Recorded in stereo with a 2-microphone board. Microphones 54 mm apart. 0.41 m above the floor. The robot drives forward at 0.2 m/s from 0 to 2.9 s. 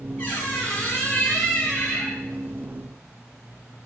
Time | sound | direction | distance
0.2 | a squeak | 45° left (ahead or behind) | 1.9 m